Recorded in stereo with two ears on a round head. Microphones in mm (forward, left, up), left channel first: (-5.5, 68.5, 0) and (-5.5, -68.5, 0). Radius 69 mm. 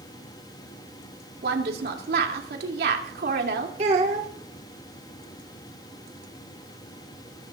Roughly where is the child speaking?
Right.